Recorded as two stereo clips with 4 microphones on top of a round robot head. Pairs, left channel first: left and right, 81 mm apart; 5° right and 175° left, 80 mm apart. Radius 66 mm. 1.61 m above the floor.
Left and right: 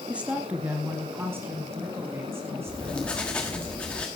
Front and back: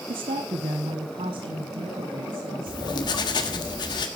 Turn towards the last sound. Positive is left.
turn(degrees=10)